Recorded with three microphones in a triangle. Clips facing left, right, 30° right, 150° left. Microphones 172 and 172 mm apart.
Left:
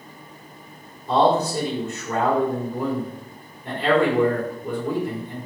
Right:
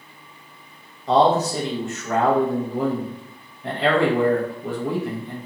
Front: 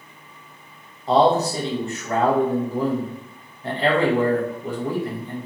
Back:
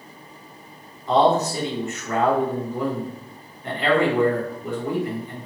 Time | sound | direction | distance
1.1 | a man speaking | 90° right | 1.0 m